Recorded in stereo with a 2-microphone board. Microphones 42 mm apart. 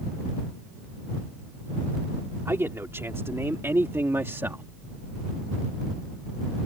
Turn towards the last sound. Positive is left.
turn(degrees=-65)  # may be behind; listen again after turning